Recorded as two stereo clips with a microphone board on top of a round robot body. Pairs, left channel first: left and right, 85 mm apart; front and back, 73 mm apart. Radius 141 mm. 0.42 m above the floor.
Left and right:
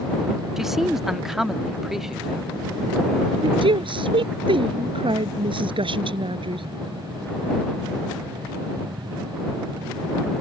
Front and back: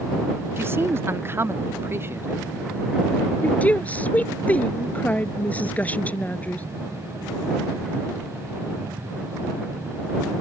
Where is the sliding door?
I don't hear a sliding door.